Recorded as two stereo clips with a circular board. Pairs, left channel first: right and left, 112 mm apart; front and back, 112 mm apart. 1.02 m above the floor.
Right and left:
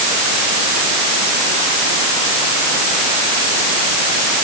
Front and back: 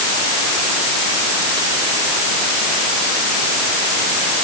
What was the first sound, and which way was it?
Only background noise.